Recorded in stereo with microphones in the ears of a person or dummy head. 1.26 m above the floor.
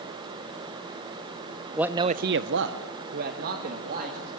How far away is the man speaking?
About 0.8 m.